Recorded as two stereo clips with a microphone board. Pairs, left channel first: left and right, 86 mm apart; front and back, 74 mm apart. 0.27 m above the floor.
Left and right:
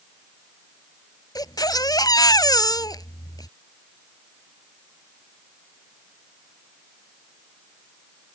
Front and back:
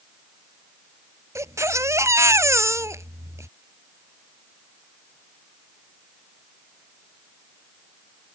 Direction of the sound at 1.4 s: 135° left.